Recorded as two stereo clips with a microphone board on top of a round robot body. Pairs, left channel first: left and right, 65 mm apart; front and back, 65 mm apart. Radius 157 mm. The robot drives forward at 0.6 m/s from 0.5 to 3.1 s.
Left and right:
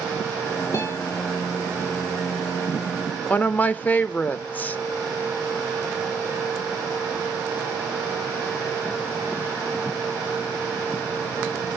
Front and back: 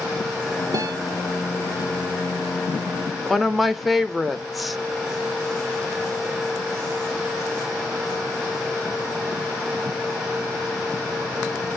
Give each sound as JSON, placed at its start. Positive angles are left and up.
{"t": 0.7, "sound": "a guitar", "azimuth_deg": 140, "distance_m": 0.5}
{"t": 3.3, "sound": "a woman speaking", "azimuth_deg": 90, "distance_m": 0.6}